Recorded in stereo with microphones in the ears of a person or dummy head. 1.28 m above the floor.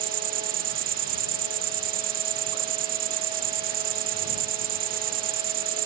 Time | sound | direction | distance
0.0 | an insect | 50° right (ahead or behind) | ?